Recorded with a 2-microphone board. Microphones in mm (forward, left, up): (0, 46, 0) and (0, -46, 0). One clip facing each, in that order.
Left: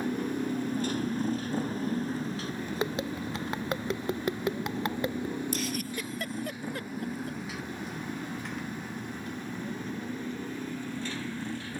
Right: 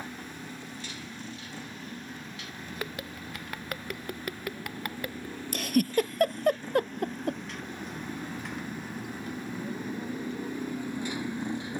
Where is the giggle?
55° right (ahead or behind).